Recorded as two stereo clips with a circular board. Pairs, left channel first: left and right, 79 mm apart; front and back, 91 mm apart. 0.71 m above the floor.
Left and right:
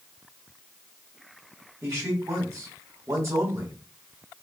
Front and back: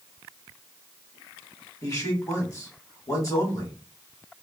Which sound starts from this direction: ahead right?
A man speaking, at 1.8 s.